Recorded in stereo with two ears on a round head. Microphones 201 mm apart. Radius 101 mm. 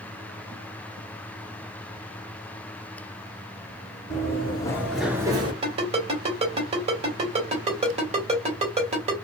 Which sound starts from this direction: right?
A ringtone, at 5.6 s.